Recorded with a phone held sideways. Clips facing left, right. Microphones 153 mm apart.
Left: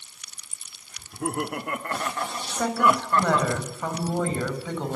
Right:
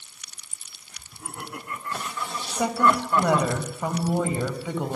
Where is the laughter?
80° left, 1.9 m; by 3.5 s 25° right (ahead or behind), 0.9 m.